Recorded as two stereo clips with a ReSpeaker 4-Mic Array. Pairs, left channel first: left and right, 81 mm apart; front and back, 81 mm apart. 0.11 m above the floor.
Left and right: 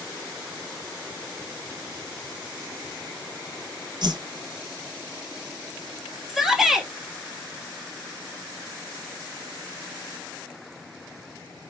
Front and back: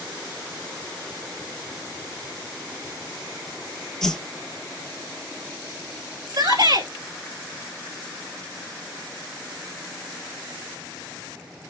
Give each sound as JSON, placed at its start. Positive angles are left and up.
{"t": 4.0, "sound": "a whoosh", "azimuth_deg": -80, "distance_m": 1.0}
{"t": 6.3, "sound": "a shout", "azimuth_deg": -175, "distance_m": 2.5}